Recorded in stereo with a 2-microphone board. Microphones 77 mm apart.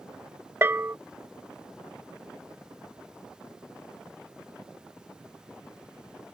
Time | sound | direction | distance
0.6 | a bell | 30° right (ahead or behind) | ?